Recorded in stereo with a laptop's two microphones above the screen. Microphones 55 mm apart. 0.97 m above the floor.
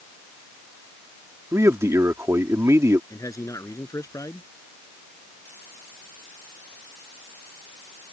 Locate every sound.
1.5 s a man speaking: 60° right (ahead or behind)
3.1 s a man speaking: 75° left (ahead or behind)